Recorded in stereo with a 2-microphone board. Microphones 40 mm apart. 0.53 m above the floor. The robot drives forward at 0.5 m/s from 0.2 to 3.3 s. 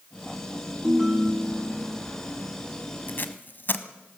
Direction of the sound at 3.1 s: 50° left (ahead or behind).